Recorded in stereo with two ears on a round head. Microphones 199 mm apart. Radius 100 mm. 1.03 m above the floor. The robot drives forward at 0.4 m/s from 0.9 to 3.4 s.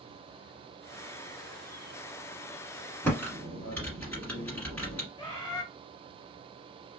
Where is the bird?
15° left (ahead or behind), 1.7 m.